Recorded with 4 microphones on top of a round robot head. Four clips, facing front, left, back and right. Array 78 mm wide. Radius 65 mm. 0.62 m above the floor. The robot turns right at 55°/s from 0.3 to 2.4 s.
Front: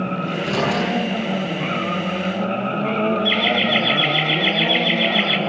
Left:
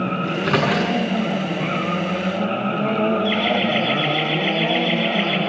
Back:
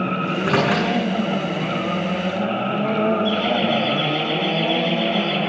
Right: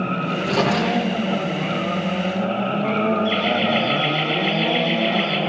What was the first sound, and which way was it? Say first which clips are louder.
A microwave: left 1 dB, back 3 dB; 120° left.